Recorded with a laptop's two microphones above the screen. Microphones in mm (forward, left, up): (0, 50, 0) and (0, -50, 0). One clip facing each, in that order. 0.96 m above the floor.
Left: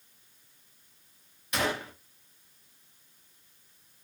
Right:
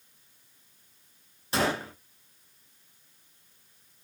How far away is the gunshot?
About 0.6 m.